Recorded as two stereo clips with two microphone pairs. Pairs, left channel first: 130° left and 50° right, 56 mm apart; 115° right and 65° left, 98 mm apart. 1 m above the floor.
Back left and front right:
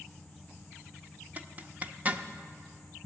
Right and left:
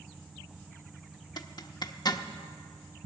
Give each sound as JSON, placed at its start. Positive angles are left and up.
{"t": 1.4, "sound": "a zipper", "azimuth_deg": -100, "distance_m": 0.6}